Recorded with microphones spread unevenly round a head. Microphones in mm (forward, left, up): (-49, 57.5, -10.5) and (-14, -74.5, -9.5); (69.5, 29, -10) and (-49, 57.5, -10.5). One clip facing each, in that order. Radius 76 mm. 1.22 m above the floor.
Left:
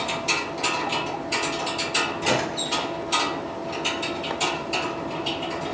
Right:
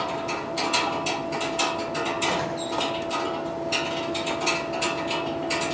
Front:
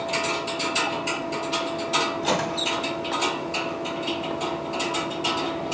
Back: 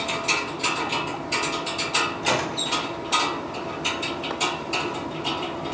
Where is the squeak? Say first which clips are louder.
Left 1 dB, front 1 dB; 75° left, 6 m.